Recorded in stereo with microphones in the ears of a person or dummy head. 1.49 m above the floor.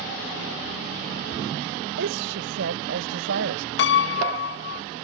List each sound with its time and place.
2.0 s a woman speaking: 55° right (ahead or behind); by 3.7 s 60° right (ahead or behind)
3.8 s a piano: 60° left (ahead or behind)